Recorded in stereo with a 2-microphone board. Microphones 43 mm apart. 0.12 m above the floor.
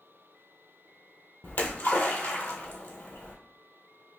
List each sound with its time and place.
1.4 s a splash: 50° left (ahead or behind), 1.2 m